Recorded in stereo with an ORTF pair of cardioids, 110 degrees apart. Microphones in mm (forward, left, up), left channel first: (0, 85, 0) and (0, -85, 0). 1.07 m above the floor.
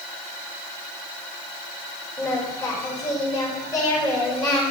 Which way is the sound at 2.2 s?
20° left.